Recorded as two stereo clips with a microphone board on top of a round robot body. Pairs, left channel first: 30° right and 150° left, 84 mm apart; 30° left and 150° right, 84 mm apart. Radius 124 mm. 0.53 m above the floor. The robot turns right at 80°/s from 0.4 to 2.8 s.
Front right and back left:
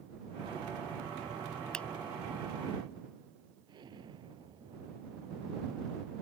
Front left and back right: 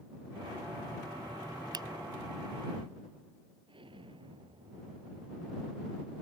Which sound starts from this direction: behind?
An explosion, at 3.7 s.